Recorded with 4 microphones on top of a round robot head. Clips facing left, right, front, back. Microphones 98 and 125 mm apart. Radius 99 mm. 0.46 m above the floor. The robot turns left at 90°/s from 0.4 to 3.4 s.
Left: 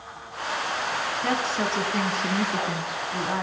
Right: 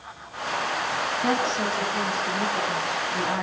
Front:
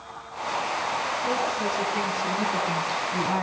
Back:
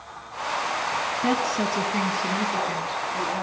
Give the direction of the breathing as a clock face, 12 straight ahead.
I don't hear breathing.